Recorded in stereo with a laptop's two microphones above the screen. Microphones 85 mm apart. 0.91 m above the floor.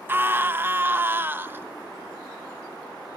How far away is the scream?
About 0.6 m.